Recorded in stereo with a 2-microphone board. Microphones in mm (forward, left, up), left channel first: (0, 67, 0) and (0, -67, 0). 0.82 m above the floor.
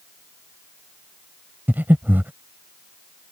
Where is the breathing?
15° right (ahead or behind).